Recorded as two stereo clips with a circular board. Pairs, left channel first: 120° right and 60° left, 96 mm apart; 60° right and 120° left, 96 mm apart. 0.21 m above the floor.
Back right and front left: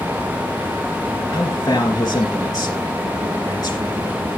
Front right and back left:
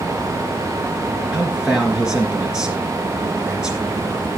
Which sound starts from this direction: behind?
A man speaking, at 1.3 s.